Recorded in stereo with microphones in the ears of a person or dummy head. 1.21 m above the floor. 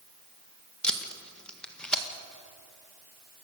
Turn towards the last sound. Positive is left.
turn(degrees=5)  # may be behind; listen again after turning